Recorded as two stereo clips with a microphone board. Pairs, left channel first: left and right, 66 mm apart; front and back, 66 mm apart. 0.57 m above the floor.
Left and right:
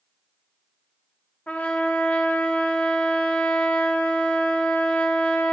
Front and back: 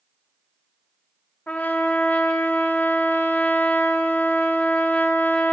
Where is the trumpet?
35° left, 0.9 m.